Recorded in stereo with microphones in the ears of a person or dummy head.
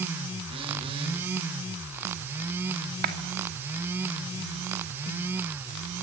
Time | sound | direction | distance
0.5 | a phone buzzing | 30° right (ahead or behind) | 3 m
3.0 | a clap | 55° right (ahead or behind) | 2.5 m